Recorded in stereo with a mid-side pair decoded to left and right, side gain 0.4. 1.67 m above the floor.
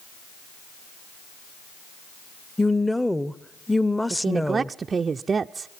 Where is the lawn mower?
I don't hear a lawn mower.